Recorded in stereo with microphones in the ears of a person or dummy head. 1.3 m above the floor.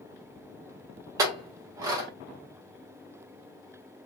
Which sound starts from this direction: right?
A clink, at 1.2 s.